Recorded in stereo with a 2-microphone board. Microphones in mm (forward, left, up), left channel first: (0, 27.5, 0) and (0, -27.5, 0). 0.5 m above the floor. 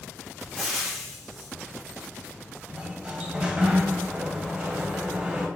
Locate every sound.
0.6 s frying: centre (ahead or behind), 1.2 m
2.7 s a sliding door: 20° right (ahead or behind), 0.9 m